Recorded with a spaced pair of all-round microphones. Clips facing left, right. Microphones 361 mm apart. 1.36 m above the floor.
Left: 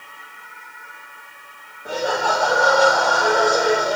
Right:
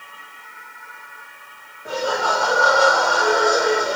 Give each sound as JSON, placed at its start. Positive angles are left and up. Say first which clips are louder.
{"t": 1.9, "sound": "laughter", "louder": "left 1 dB", "side_deg": 0, "distance_m": 2.5}